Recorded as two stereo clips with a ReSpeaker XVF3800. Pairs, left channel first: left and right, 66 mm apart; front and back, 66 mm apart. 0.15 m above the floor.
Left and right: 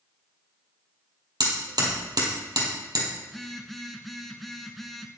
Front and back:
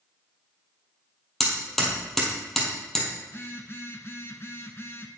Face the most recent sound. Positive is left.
turn(degrees=5)